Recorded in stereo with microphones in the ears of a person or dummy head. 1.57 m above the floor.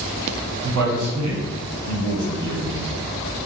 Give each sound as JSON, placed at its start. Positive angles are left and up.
{"t": 0.6, "sound": "a man speaking", "side_deg": -60, "distance_m": 1.0}